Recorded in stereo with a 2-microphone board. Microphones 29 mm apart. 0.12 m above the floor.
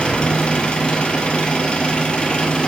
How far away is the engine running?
About 1.6 m.